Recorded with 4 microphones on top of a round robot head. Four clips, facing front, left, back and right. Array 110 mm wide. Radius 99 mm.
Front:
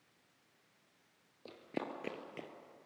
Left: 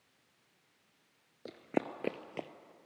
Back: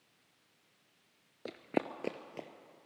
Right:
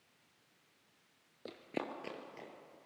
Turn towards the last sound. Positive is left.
turn(degrees=100)